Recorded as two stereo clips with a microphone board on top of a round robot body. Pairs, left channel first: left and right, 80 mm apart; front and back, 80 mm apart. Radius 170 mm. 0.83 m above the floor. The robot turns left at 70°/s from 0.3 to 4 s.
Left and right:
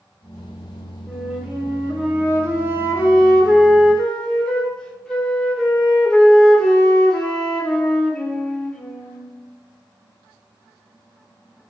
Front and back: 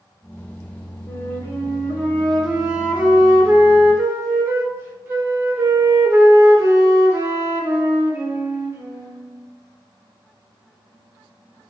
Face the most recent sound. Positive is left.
turn(degrees=160)